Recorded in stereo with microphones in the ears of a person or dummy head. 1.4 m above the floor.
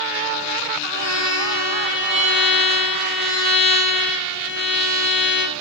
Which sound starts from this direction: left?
A violin, at 0.9 s.